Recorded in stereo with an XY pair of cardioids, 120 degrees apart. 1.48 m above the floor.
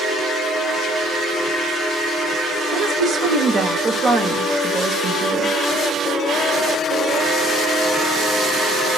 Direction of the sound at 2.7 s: 40° right.